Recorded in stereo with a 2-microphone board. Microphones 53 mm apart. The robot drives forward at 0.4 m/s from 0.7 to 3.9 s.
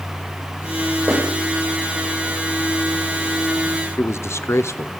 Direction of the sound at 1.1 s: 50° right (ahead or behind).